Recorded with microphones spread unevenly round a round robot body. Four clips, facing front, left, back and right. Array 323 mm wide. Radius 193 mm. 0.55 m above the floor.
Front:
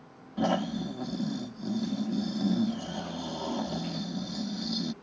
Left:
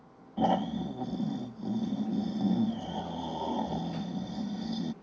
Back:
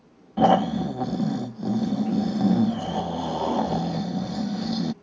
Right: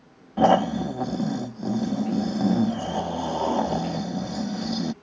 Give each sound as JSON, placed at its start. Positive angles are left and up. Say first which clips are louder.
{"t": 0.4, "sound": "snoring", "louder": "right 9 dB, back 10 dB", "azimuth_deg": -90}